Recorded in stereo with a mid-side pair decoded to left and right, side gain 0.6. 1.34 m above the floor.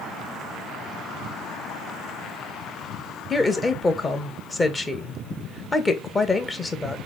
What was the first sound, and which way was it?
A woman speaking, 20° left.